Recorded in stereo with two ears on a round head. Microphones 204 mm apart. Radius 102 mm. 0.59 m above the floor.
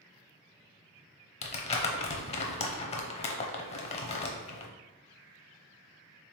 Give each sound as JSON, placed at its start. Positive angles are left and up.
{"t": 1.4, "sound": "crumpling", "side_deg": 30, "distance_m": 0.6}